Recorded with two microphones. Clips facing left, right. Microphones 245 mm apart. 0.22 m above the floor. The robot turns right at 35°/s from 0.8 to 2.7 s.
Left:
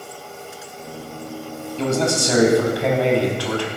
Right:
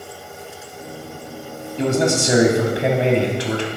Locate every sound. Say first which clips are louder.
1.8 s a man speaking: right 2 dB; 15° right (ahead or behind), 1.1 m; by 3.7 s 20° right (ahead or behind), 1.1 m